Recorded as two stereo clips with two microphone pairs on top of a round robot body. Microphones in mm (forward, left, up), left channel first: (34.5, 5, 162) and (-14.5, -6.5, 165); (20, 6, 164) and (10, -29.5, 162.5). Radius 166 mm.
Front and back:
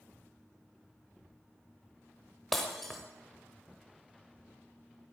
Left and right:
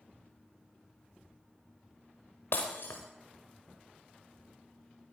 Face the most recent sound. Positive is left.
turn(degrees=105)